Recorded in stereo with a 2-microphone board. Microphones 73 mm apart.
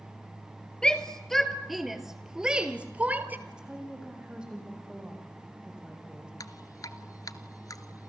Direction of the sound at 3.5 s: 10° right (ahead or behind).